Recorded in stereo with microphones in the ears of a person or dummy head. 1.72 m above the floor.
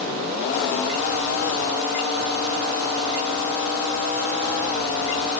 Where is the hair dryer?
No hair dryer in this recording.